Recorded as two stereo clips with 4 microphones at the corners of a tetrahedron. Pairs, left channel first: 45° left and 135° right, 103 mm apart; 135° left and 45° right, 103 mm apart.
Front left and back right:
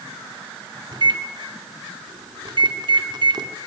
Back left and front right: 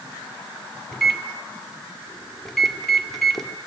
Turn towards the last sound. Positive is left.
turn(degrees=-140)